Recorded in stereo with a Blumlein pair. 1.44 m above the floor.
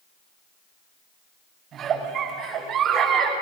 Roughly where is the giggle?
Ahead right.